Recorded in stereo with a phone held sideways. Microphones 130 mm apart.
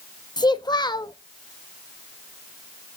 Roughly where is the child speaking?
Left.